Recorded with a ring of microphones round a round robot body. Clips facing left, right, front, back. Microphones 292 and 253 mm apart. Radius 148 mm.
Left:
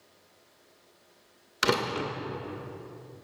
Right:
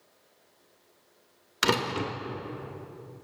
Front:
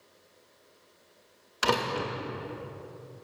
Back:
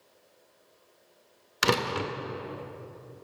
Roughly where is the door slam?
Behind.